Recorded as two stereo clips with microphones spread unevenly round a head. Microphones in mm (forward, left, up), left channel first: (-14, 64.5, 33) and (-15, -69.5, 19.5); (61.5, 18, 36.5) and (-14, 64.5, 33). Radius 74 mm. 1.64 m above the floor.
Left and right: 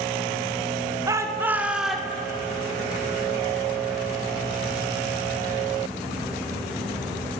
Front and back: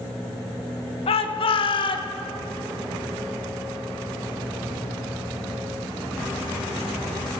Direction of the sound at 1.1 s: 20° right.